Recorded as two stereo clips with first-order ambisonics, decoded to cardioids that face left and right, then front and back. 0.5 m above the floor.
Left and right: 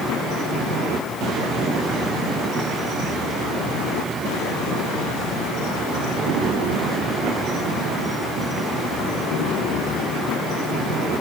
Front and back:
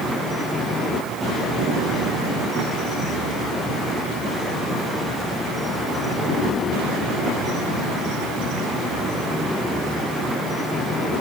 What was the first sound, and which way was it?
Only background noise.